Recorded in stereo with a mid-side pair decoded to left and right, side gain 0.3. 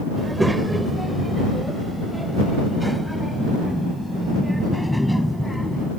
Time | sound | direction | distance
0.2 | a child speaking | 15° right | ?